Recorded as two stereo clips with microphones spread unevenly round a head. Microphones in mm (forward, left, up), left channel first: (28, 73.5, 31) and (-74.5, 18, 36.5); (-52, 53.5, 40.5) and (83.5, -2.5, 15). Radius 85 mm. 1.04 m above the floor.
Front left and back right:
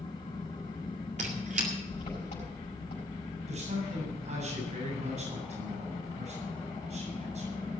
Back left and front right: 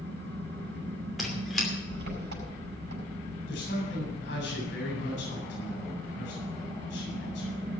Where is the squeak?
110° right, 2.5 m.